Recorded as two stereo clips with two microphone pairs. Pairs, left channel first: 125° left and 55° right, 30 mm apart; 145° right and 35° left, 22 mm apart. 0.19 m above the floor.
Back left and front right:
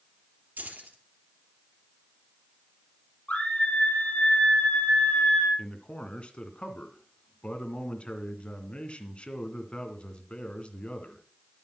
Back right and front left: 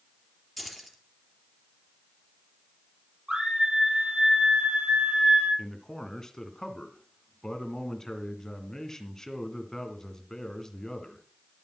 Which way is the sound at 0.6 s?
55° right.